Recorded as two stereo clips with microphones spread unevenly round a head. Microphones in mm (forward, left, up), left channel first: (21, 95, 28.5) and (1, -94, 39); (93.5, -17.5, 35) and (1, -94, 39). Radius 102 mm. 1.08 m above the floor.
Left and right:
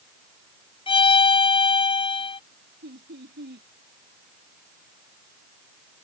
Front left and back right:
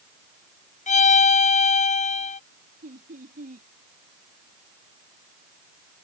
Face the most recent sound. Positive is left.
turn(degrees=-135)